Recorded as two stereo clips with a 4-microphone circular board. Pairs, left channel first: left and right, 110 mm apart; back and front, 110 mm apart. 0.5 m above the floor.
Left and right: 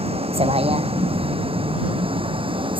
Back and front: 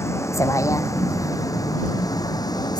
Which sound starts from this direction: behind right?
A vehicle, at 0.0 s.